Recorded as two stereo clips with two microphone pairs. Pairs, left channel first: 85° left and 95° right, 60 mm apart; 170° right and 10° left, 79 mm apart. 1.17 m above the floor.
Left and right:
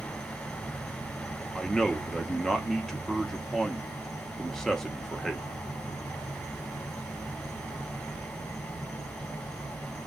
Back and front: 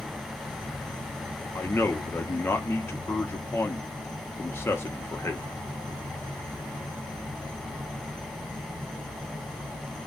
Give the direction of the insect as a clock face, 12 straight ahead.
10 o'clock.